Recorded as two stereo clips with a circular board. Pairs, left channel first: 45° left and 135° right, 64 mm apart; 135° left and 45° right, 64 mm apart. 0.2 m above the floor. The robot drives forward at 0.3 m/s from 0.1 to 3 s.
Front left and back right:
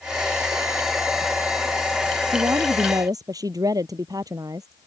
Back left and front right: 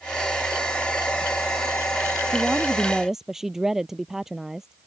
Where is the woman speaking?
125° right; by 4.9 s 130° right.